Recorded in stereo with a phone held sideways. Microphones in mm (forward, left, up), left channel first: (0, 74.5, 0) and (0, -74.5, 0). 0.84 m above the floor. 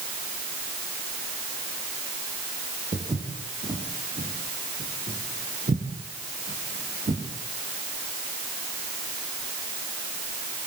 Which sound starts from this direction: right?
Footsteps, at 2.9 s.